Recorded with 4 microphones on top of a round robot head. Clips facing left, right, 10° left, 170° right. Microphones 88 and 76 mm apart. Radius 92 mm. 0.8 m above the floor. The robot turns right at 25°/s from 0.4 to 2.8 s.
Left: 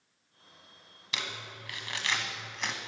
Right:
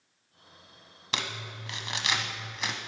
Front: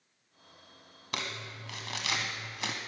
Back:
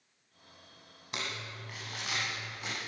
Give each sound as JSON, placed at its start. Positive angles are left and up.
{"t": 1.1, "sound": "crumpling", "azimuth_deg": -45, "distance_m": 1.0}